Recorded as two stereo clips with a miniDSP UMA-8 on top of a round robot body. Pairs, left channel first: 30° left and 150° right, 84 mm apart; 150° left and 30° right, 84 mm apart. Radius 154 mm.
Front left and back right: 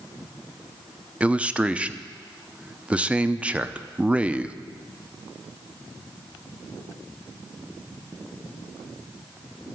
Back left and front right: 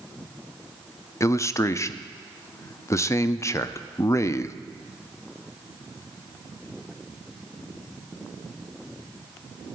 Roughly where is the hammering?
I don't hear hammering.